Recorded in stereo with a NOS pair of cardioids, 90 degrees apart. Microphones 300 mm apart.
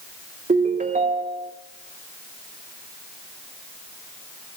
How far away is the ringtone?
About 2.5 m.